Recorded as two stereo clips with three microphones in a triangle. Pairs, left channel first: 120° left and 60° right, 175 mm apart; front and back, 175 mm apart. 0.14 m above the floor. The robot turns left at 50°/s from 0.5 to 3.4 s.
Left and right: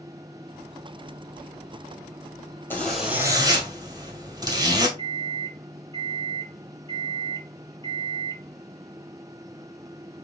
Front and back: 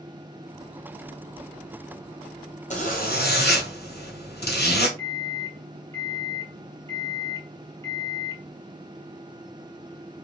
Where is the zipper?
40° left, 1.7 m; by 4.9 s 5° left, 1.7 m.